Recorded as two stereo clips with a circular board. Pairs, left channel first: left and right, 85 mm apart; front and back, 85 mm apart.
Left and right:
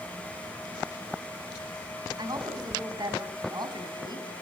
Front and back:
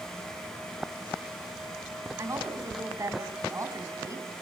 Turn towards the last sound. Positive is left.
turn(degrees=-125)